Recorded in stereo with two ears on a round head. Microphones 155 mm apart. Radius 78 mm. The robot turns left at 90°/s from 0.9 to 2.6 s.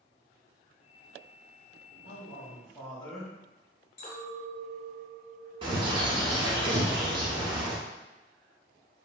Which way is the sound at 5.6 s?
30° right (ahead or behind).